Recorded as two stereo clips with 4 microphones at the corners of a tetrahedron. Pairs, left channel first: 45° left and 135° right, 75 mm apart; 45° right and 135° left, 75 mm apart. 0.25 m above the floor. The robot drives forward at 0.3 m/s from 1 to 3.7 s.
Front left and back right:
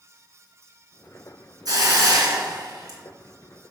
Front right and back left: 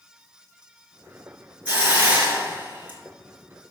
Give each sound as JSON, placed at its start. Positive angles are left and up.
{"t": 1.6, "sound": "a hiss", "azimuth_deg": -155, "distance_m": 2.5}